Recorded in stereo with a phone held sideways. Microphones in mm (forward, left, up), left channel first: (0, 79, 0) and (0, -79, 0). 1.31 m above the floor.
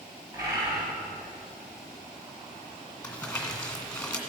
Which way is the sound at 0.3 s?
25° right (ahead or behind).